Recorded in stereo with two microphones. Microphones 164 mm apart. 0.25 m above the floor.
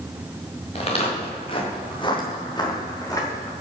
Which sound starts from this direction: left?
Footsteps, at 0.8 s.